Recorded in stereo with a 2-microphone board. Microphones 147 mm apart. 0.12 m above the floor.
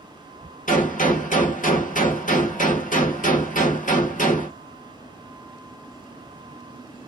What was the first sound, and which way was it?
A gunshot, 65° left (ahead or behind).